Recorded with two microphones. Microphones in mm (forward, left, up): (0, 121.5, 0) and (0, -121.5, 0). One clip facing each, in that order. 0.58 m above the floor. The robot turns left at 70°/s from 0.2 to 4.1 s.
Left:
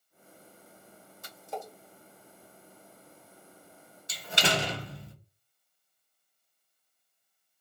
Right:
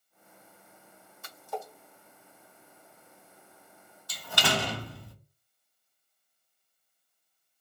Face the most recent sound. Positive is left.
turn(degrees=25)  # may be behind; listen again after turning